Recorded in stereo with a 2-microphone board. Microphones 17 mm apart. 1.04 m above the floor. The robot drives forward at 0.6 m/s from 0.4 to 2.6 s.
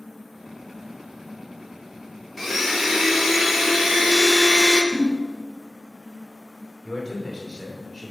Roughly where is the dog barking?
I don't hear a dog barking.